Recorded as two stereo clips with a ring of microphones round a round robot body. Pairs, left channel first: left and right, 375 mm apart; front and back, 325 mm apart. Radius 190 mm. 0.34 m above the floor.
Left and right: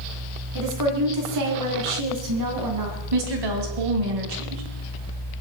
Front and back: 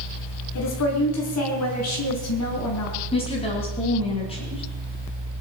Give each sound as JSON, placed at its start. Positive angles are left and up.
{"t": 0.6, "sound": "a woman speaking", "azimuth_deg": -50, "distance_m": 4.5}
{"t": 3.1, "sound": "a woman speaking", "azimuth_deg": -75, "distance_m": 3.5}